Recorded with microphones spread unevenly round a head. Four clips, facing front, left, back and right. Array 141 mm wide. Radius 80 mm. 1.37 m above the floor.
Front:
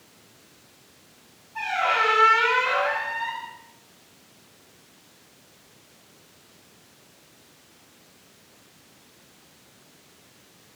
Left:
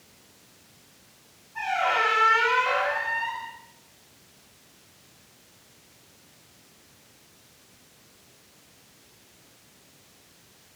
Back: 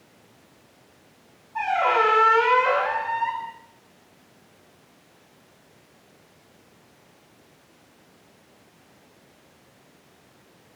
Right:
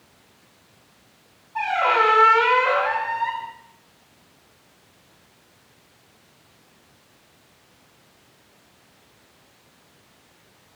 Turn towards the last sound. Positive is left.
turn(degrees=-145)